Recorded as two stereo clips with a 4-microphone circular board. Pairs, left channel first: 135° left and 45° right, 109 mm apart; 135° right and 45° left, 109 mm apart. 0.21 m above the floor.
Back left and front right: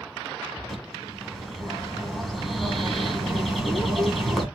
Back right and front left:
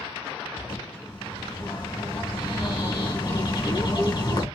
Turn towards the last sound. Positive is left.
turn(degrees=-135)